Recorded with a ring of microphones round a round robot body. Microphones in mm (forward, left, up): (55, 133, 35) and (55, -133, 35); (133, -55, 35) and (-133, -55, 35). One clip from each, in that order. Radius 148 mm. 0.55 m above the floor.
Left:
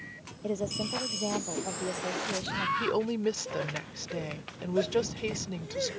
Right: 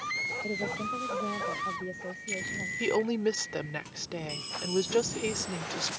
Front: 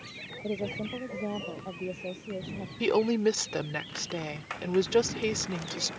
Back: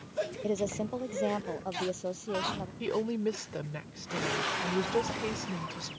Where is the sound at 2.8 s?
30° right.